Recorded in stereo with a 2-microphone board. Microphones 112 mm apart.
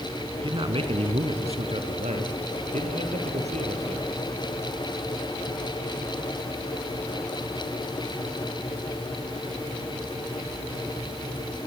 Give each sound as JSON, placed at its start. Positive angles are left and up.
{"t": 0.4, "sound": "a man speaking", "side_deg": -50, "distance_m": 1.9}